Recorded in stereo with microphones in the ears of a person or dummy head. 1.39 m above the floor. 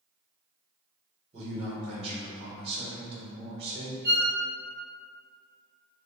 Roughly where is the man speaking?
Right.